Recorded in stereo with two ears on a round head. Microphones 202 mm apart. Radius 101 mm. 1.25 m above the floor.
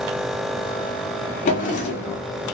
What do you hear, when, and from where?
1.4 s a drawer: 35° left (ahead or behind), 0.9 m